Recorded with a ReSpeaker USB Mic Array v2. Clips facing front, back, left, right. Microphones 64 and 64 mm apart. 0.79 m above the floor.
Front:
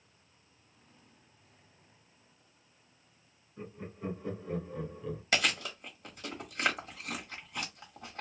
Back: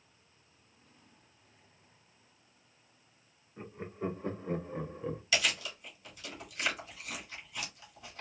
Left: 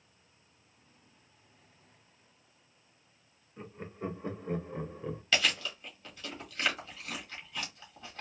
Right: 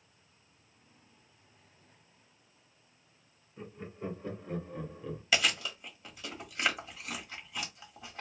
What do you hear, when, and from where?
3.6 s laughter: 145° left, 1.5 m; by 5.2 s 135° left, 0.7 m
5.3 s chewing: 15° right, 1.4 m